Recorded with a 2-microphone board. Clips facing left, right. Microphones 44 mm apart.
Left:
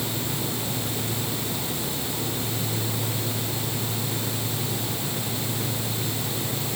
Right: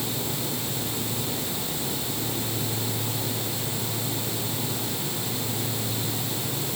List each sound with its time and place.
Only background noise.